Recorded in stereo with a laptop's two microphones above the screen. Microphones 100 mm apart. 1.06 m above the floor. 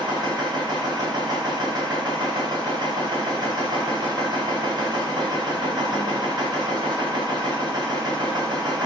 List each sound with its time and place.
0.0 s a machine running: 45° right (ahead or behind), 1.4 m